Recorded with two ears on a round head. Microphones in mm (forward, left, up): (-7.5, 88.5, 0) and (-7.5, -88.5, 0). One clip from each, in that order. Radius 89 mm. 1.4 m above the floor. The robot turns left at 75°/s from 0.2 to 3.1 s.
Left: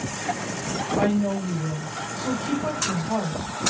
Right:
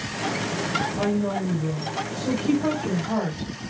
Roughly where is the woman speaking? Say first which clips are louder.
Left 1 dB; left.